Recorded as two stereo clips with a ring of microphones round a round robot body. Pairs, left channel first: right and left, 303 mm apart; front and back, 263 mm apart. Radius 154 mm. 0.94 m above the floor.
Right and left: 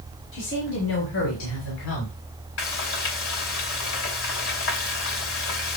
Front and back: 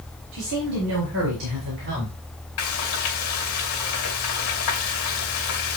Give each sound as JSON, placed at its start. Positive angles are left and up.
{"t": 0.3, "sound": "a woman speaking", "azimuth_deg": -140, "distance_m": 4.5}
{"t": 2.6, "sound": "frying", "azimuth_deg": -40, "distance_m": 2.5}